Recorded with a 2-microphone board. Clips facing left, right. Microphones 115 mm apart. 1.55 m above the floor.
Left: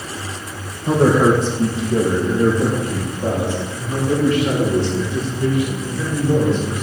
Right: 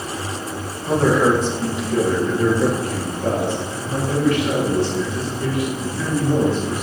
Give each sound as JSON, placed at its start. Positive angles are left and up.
{"t": 0.9, "sound": "a man speaking", "side_deg": 35, "distance_m": 1.7}